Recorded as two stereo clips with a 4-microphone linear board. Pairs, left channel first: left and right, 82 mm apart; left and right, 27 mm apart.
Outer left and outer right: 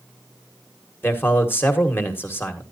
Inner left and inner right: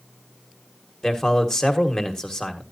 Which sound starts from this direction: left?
A man speaking, at 1.0 s.